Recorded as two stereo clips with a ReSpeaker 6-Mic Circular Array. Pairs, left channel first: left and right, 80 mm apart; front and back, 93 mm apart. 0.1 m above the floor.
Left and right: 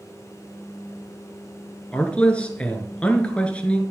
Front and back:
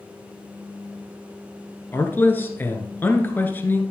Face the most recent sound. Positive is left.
turn(degrees=35)